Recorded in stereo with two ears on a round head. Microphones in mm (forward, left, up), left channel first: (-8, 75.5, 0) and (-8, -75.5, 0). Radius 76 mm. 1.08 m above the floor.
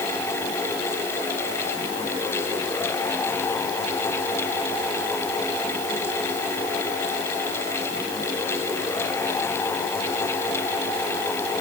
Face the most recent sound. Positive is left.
No sound to turn to.